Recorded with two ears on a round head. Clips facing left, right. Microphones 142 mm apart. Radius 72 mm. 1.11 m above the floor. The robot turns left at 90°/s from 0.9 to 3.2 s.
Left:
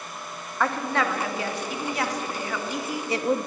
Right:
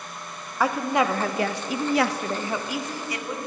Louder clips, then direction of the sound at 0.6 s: Right 3 dB; 10° right.